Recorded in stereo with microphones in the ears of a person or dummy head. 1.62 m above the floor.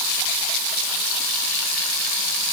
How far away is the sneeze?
I don't hear a sneeze.